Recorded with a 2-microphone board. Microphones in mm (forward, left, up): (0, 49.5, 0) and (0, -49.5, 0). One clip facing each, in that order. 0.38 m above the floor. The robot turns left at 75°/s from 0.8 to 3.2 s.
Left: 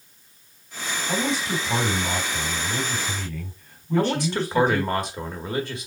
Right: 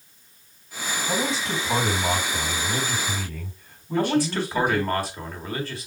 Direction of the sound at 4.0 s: 20° left (ahead or behind).